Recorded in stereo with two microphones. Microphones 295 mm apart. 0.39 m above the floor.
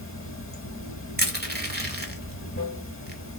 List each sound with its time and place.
0.0 s running water: 45° left (ahead or behind), 0.9 m
1.2 s crushing: 35° right (ahead or behind), 1.0 m